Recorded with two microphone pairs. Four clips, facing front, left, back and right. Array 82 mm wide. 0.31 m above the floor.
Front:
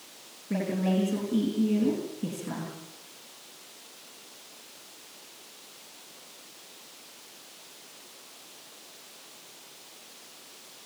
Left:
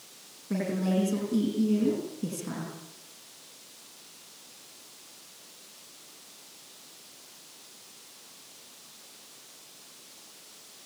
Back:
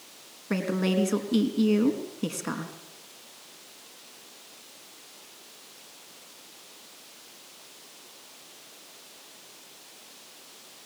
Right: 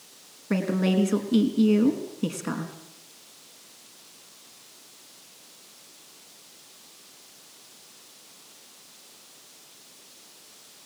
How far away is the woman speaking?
About 3.5 m.